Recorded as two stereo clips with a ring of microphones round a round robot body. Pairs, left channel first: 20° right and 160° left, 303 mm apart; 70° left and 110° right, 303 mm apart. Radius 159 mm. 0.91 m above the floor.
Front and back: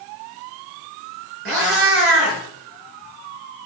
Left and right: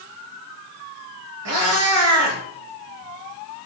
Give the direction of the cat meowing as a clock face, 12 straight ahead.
5 o'clock.